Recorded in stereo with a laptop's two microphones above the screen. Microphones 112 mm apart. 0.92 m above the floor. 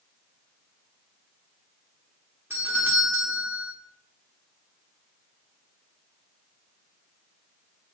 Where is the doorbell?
20° right (ahead or behind), 1.8 m.